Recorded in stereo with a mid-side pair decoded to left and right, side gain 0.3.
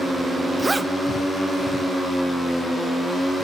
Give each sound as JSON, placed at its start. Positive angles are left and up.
{"t": 0.6, "sound": "a zipper", "azimuth_deg": -30, "distance_m": 0.6}